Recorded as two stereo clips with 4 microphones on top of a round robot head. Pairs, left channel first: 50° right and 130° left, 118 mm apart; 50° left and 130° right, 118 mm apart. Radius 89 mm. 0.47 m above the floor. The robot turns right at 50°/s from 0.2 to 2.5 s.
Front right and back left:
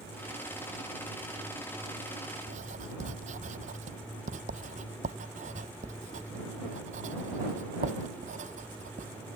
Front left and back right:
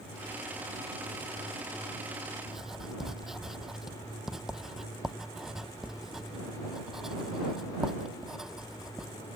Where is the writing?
140° left; by 9.1 s 145° left.